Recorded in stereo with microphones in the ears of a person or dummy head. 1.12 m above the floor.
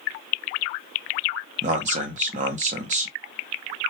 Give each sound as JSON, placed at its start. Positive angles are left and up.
{"t": 1.6, "sound": "a man speaking", "side_deg": -40, "distance_m": 0.7}